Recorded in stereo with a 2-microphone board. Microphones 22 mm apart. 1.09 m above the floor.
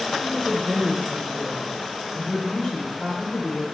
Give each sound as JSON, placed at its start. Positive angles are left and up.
{"t": 0.2, "sound": "a woman speaking", "side_deg": 55, "distance_m": 3.5}